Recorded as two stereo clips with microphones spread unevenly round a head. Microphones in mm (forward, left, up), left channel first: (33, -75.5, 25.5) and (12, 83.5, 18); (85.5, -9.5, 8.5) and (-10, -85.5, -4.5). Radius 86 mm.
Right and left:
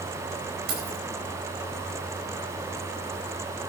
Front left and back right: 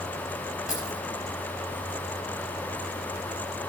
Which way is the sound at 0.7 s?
130° left.